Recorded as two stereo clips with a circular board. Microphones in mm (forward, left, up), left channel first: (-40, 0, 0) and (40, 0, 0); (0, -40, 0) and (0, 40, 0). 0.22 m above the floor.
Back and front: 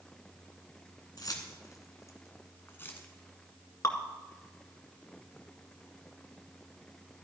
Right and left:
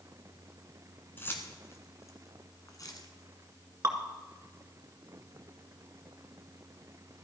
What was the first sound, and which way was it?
Keys jangling, 150° right.